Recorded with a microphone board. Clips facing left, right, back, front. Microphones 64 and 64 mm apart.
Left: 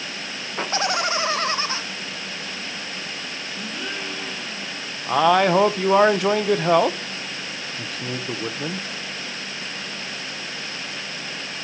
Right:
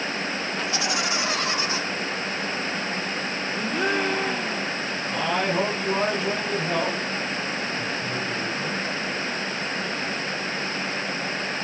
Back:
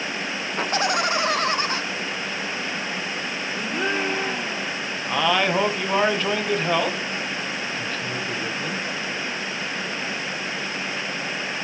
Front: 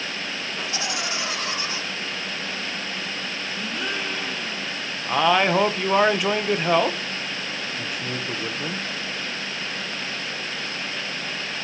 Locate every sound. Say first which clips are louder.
0.6 s laughter: left 6 dB, back 9 dB; 140° left, 1.6 m; by 1.8 s 145° left, 2.5 m
3.5 s a gasp: right 8 dB, back 5 dB; 125° right, 2.5 m
5.1 s a man speaking: left 9 dB, front 2 dB; 80° left, 1.4 m